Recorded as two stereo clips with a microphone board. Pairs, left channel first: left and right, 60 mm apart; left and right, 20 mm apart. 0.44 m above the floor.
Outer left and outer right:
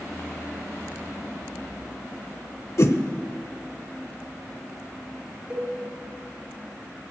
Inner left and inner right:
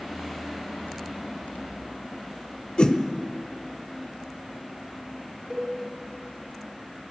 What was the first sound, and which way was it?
A whoosh, 55° left (ahead or behind).